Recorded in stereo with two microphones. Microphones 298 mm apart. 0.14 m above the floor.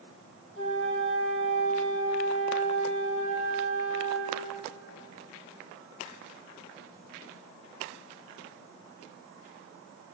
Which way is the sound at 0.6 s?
45° left (ahead or behind).